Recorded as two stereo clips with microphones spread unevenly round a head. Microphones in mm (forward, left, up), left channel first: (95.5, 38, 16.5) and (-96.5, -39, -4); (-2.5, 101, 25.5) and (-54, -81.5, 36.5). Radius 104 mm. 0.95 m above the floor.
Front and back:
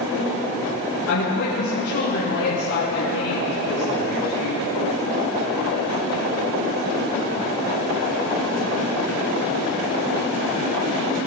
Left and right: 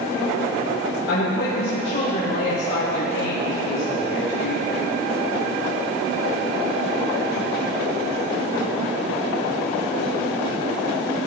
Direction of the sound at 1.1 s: 30° left.